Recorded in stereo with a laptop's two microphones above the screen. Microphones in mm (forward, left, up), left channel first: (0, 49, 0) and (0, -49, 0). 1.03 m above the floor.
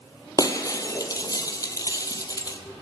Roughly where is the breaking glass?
Left.